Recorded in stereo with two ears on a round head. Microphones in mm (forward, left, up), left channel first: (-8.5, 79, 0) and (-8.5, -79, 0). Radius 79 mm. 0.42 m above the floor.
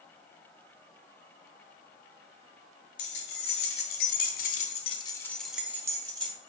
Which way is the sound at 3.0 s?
60° left (ahead or behind).